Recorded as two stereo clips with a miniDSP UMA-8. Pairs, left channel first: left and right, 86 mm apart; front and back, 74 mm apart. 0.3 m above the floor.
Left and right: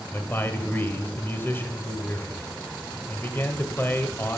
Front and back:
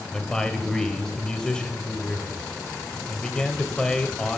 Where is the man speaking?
70° left, 1.0 m.